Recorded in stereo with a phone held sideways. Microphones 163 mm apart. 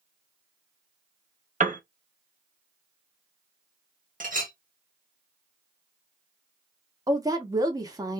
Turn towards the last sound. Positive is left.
turn(degrees=-20)  # may be behind; listen again after turning